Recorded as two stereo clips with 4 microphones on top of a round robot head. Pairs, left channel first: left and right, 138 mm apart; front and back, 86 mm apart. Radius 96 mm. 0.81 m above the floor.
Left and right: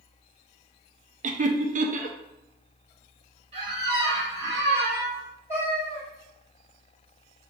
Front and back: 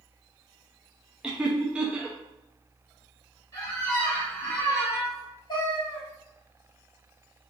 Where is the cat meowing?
30° left, 1.7 m.